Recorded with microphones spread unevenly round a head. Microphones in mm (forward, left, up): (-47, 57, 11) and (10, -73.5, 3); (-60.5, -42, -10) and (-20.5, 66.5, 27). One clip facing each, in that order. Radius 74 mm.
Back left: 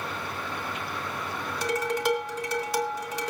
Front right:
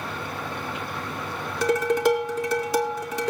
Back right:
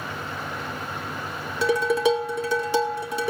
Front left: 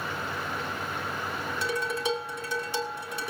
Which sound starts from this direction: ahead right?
Dishes clattering, at 1.6 s.